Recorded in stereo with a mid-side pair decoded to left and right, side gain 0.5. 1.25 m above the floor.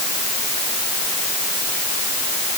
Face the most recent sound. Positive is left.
No sound to turn to.